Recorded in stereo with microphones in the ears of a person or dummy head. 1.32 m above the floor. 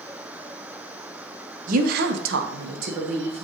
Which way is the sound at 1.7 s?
50° right (ahead or behind).